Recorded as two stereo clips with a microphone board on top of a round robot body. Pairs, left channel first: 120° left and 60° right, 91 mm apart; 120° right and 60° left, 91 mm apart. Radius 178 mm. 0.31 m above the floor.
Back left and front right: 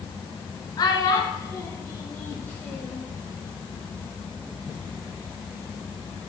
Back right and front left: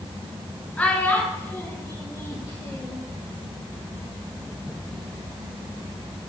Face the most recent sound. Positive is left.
turn(degrees=-170)